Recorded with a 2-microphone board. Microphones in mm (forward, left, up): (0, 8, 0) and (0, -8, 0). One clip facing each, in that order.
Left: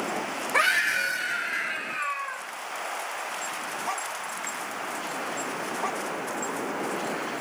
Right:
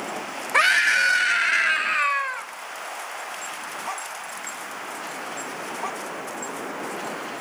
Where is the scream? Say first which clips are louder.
Right 5 dB; 20° right (ahead or behind), 1.7 m; by 2.5 s 75° right (ahead or behind), 2 m.